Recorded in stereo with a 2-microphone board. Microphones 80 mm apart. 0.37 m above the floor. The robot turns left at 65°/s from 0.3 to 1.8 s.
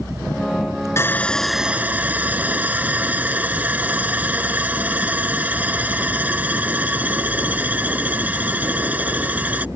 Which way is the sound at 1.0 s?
35° left.